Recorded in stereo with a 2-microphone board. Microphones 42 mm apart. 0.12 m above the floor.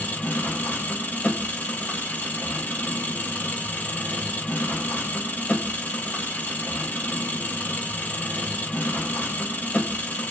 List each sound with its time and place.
0.0 s an engine running: 40° left (ahead or behind), 0.9 m